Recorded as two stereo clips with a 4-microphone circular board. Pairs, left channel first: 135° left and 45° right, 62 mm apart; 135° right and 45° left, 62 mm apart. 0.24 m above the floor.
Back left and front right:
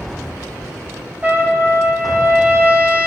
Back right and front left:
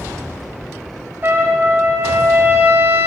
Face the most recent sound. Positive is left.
turn(degrees=10)